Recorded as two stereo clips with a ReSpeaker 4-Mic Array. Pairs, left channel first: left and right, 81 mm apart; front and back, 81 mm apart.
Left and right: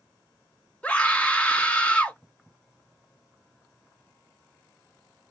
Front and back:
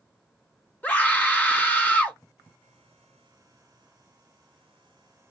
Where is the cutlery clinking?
I don't hear cutlery clinking.